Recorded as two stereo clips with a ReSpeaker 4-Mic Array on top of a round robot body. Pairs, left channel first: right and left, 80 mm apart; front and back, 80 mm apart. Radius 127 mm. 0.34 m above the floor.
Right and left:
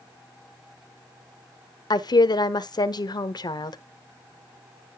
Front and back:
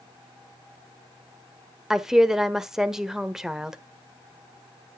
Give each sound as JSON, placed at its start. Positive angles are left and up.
{"t": 1.9, "sound": "a woman speaking", "azimuth_deg": -95, "distance_m": 1.3}